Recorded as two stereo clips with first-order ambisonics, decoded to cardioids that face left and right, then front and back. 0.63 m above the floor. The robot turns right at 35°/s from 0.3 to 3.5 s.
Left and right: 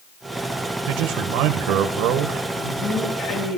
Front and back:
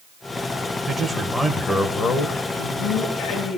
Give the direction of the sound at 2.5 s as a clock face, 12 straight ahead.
11 o'clock.